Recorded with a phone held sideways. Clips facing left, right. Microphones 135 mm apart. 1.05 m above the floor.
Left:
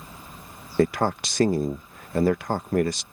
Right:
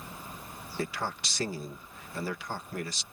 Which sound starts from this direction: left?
A man speaking, at 0.8 s.